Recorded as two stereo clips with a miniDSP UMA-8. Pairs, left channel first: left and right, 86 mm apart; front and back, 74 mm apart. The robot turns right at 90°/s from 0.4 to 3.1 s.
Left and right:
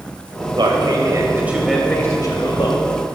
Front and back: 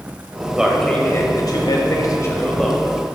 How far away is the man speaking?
About 1.9 m.